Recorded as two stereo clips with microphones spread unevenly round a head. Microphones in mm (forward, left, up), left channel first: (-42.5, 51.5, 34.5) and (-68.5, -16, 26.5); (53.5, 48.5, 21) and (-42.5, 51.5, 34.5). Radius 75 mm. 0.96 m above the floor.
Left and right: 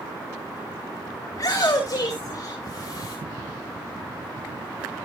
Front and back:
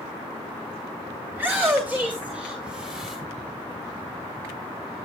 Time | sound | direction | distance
1.3 | a shout | 105° left | 3 m